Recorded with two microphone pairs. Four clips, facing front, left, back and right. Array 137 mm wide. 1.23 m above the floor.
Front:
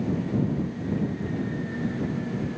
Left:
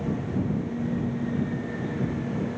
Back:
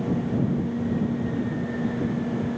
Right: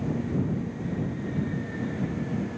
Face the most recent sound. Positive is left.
No sound to turn to.